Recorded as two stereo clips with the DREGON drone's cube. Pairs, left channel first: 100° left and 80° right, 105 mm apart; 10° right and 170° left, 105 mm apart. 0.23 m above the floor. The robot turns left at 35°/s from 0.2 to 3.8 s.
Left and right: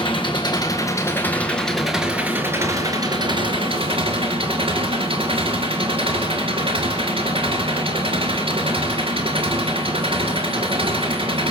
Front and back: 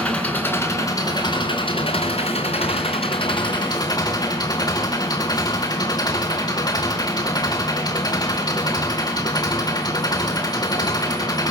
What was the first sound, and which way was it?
An engine running, 65° left.